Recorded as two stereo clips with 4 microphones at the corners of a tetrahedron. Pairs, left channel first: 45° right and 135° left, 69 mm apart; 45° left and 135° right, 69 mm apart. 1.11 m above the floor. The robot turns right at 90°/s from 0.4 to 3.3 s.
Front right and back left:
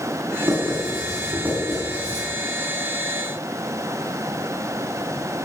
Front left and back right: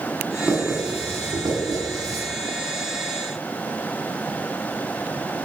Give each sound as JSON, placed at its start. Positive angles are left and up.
{"t": 0.4, "sound": "writing", "azimuth_deg": 110, "distance_m": 7.5}